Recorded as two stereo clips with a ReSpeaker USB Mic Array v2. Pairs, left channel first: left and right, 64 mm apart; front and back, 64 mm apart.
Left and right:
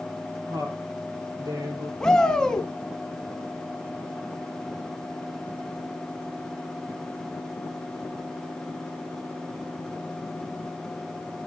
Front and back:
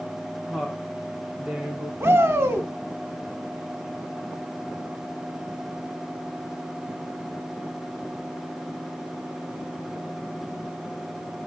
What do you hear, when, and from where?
0.5 s a woman speaking: 100° right, 5.5 m; by 1.9 s 105° right, 4.5 m
2.0 s a shout: 165° left, 1.3 m